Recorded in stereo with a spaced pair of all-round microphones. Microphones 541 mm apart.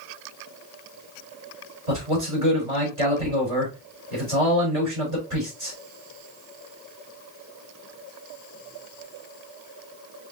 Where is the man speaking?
75° right (ahead or behind), 3 m.